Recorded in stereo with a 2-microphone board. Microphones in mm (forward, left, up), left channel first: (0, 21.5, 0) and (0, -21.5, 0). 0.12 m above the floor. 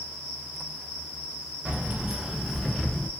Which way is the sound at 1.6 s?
30° right (ahead or behind).